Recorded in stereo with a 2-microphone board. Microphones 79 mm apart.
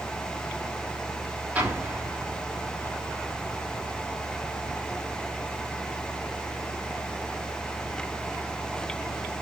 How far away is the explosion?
About 2.5 m.